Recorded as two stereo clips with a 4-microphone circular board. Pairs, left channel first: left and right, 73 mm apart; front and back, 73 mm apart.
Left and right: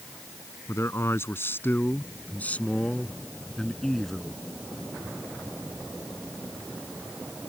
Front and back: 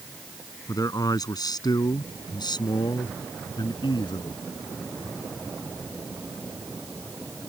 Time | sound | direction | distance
0.7 | a man speaking | 35° left | ?